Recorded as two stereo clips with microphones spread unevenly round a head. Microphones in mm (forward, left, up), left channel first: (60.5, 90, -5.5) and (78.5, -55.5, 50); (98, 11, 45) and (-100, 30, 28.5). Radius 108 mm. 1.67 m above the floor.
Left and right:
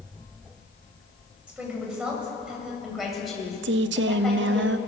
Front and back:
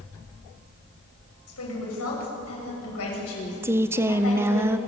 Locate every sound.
1.5 s a woman speaking: 5° right, 7 m; by 4.6 s 10° left, 7.5 m
3.6 s a woman speaking: 105° right, 0.7 m